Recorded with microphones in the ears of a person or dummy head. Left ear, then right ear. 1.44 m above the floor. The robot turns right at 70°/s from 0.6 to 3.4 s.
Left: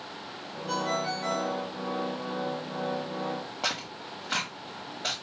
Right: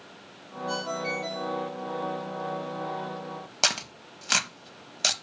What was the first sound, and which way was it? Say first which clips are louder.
A ringtone: left 1 dB; 10° right.